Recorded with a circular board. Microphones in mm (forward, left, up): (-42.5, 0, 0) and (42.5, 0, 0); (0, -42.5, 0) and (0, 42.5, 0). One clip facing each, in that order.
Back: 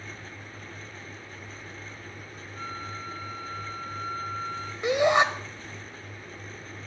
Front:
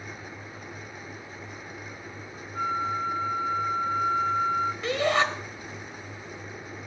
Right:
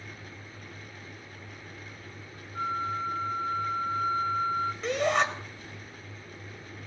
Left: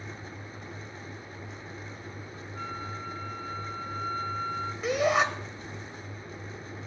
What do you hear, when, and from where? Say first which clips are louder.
2.5 s a flute: front 10 dB, right 8 dB; 35° right, 0.9 m
4.8 s a shout: back 5 dB, left 2 dB; 165° left, 1.1 m